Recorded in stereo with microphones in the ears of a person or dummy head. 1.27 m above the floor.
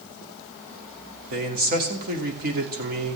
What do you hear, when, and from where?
1.3 s a man speaking: 50° right (ahead or behind), 2.5 m